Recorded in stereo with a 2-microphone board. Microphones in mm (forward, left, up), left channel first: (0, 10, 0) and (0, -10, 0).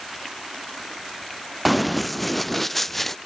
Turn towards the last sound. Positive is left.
turn(degrees=10)  # may be behind; listen again after turning